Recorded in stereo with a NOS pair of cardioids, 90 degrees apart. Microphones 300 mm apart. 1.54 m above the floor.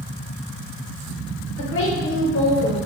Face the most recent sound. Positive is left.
turn(degrees=45)